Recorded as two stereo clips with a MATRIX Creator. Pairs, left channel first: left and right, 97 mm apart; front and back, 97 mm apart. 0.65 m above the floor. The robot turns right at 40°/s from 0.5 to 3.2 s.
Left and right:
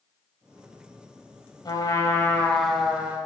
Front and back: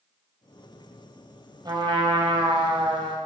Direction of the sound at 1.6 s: 135° left.